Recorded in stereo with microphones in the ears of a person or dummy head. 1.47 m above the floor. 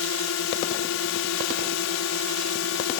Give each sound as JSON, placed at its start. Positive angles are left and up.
{"t": 0.0, "sound": "a drone", "side_deg": 75}